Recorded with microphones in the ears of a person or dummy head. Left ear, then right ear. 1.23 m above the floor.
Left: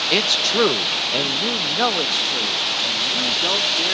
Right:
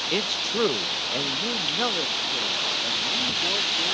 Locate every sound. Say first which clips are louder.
0.1 s a man speaking: left 9 dB; 20° left (ahead or behind); by 3.9 s 35° left (ahead or behind)